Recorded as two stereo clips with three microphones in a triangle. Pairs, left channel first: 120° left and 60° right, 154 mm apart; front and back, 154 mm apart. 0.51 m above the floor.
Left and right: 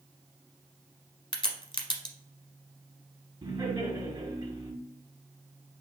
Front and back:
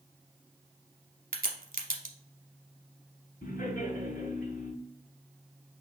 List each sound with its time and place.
1.3 s a crack: straight behind, 0.9 m
3.4 s laughter: 5° left, 1.8 m